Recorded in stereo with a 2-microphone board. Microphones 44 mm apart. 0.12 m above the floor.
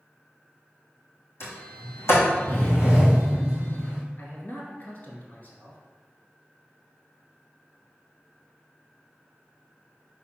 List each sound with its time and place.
1.4 s a sliding door: 65° left (ahead or behind), 2 m
4.2 s a man speaking: 40° left (ahead or behind), 1.5 m